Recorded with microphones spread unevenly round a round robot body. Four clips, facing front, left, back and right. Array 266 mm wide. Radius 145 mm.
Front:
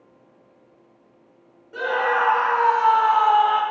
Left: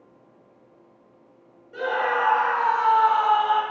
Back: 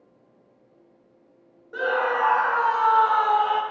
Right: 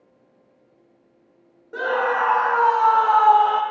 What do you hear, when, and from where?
1.7 s a scream: 80° right, 1.8 m; by 3.6 s 85° right, 0.8 m